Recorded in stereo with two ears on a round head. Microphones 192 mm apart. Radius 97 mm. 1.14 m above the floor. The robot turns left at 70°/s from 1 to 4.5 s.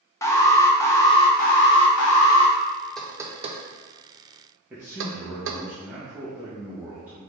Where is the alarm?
165° left, 0.6 m; by 2.5 s 55° left, 0.6 m.